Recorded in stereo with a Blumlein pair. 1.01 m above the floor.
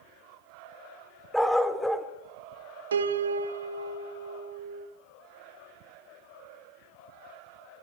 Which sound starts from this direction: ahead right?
A piano, at 2.9 s.